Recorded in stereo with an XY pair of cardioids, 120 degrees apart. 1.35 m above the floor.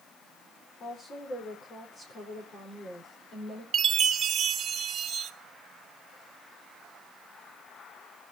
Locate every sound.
0.8 s a woman speaking: 45° left, 4.5 m
3.7 s a chime: 50° right, 1.0 m